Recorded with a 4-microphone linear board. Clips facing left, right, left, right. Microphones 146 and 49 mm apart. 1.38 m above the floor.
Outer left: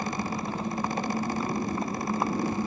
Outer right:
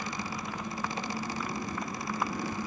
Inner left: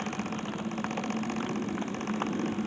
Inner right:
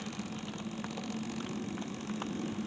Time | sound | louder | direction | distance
0.0 | a motorcycle | outer left 6 dB, inner left 7 dB | 30° left (ahead or behind) | ?